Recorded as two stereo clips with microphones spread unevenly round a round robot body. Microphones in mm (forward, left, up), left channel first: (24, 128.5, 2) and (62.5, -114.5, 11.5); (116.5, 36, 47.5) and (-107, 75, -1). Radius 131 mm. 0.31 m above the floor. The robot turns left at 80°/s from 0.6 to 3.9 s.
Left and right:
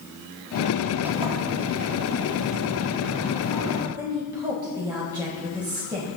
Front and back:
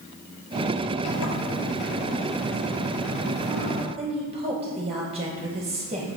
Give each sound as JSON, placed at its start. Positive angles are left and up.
{"t": 1.1, "sound": "a sliding door", "azimuth_deg": 5, "distance_m": 2.0}
{"t": 4.0, "sound": "a woman speaking", "azimuth_deg": -155, "distance_m": 1.2}